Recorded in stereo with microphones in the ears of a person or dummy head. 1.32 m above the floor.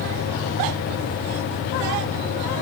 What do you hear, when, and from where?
Only background noise.